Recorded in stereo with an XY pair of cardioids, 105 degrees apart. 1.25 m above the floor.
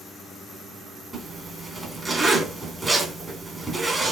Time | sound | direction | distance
1.1 | a zipper | 20° right | 3 m